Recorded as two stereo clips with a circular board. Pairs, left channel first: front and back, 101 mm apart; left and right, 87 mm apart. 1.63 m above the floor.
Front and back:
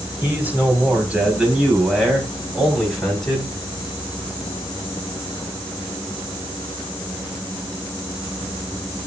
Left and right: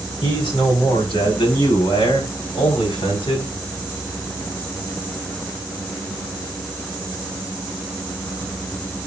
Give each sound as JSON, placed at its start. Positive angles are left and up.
{"t": 0.2, "sound": "a man speaking", "azimuth_deg": 110, "distance_m": 4.5}